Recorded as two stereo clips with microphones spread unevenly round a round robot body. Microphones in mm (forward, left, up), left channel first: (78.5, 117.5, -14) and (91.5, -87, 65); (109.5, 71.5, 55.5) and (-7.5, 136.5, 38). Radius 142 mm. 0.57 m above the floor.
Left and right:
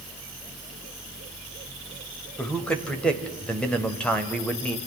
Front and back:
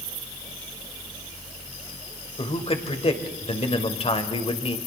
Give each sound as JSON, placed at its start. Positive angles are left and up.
{"t": 2.4, "sound": "a man speaking", "azimuth_deg": 15, "distance_m": 2.5}